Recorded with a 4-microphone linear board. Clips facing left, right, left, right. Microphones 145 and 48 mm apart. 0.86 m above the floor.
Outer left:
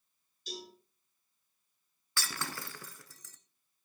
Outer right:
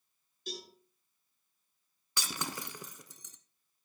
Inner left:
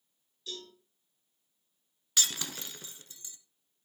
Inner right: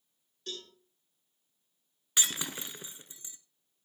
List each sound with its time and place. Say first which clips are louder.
0.5 s a cowbell: outer right 1 dB, inner right 1 dB; 55° right (ahead or behind), 8 m
2.2 s breaking glass: outer right 1 dB, inner right 1 dB; 20° right (ahead or behind), 0.9 m